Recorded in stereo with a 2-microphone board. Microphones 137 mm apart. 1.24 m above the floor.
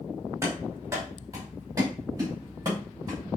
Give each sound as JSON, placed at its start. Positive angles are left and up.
{"t": 0.4, "sound": "running footsteps", "side_deg": -25, "distance_m": 6.0}